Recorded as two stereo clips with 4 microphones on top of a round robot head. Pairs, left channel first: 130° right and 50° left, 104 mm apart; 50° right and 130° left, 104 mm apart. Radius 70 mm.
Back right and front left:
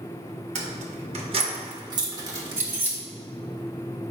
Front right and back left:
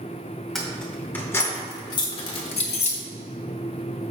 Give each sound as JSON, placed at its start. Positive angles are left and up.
{"t": 0.6, "sound": "keys jangling", "azimuth_deg": 35, "distance_m": 1.5}